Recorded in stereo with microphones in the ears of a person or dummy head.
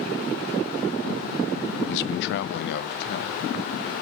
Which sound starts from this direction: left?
A man speaking, at 1.9 s.